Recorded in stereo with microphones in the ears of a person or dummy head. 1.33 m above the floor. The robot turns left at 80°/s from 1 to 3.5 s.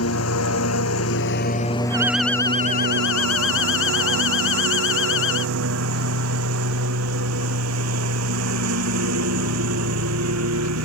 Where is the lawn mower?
85° left; by 10.8 s 85° right.